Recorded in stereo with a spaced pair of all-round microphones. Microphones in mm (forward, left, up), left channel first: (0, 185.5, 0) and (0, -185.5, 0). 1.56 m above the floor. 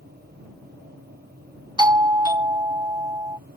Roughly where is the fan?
Right.